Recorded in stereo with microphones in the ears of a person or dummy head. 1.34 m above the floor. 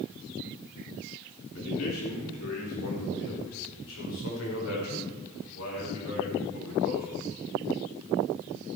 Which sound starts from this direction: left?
A man speaking, at 1.6 s.